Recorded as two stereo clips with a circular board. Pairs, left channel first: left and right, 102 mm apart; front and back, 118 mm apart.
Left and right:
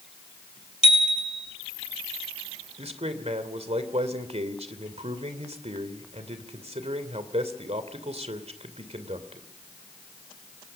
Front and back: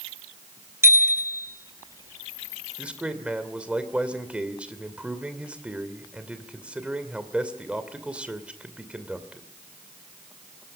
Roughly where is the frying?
No frying in this recording.